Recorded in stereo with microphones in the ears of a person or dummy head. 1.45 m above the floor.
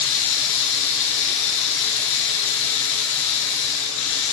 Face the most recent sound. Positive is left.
turn(degrees=65)  # may be behind; listen again after turning